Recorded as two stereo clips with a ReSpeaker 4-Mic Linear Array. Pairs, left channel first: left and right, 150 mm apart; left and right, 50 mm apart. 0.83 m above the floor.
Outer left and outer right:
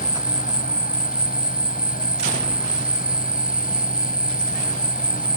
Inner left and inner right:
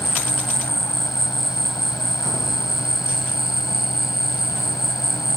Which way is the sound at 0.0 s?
75° left (ahead or behind).